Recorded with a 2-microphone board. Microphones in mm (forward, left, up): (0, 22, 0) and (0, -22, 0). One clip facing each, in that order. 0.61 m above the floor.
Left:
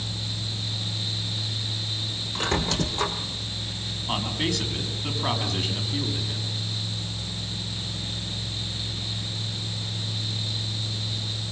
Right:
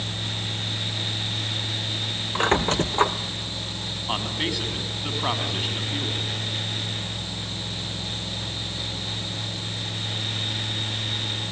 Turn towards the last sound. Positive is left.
turn(degrees=-10)  # may be behind; listen again after turning